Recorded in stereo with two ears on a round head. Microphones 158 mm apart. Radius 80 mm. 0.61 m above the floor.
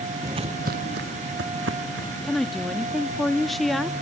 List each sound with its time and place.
0.2 s footsteps: 15° right (ahead or behind), 0.6 m; by 2.1 s 80° right, 3 m
2.2 s a woman speaking: centre (ahead or behind), 0.8 m